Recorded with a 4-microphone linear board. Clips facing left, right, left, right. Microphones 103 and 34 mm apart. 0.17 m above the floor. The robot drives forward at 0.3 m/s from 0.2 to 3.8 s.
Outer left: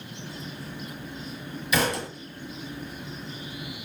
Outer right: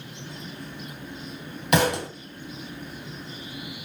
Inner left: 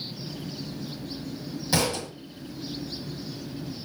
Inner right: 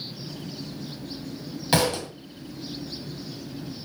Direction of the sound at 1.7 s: 55° right (ahead or behind).